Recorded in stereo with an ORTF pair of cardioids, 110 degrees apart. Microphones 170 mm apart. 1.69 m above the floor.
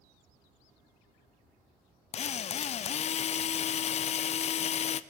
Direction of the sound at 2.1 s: 40° left.